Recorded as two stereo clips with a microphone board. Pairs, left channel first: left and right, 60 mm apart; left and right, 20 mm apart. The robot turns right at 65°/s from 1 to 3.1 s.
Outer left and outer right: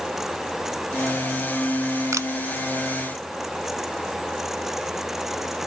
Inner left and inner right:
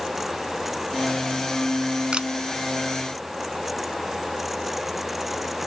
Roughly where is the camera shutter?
Right.